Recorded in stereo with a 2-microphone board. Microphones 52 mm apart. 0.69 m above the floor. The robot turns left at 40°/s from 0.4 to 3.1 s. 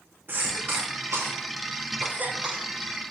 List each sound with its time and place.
0.3 s a cough: 40° right (ahead or behind), 0.9 m; by 2.6 s 20° right (ahead or behind), 0.9 m